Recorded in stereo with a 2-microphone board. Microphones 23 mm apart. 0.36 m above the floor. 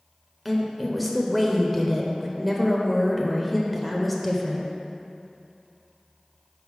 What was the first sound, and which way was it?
A woman speaking, centre (ahead or behind).